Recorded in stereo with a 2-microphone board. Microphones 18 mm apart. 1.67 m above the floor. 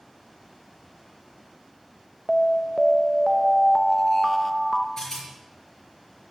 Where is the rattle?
30° left (ahead or behind), 6 m.